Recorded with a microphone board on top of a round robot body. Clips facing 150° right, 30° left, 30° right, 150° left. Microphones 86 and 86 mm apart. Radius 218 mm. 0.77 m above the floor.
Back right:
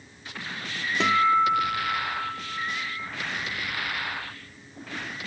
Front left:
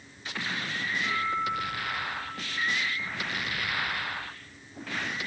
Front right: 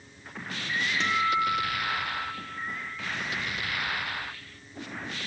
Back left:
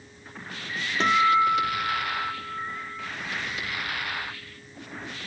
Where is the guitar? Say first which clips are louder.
Back right 11 dB, back left 7 dB; 160° right, 1.2 m.